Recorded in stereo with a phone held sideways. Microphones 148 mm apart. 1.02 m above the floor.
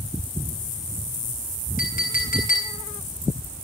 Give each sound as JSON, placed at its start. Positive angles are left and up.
{"t": 1.8, "sound": "a clink", "side_deg": 65, "distance_m": 7.5}